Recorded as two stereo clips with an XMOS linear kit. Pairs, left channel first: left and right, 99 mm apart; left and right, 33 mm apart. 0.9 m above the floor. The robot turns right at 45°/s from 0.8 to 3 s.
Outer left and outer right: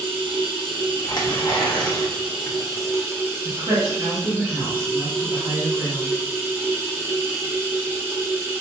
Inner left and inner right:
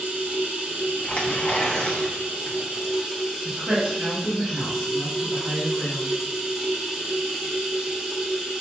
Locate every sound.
0.0 s running water: 125° right, 1.0 m; by 8.6 s 25° right, 1.0 m
1.0 s tearing paper: 80° left, 1.0 m; by 2.6 s 150° left, 1.0 m
3.5 s a woman speaking: 60° right (ahead or behind), 1.7 m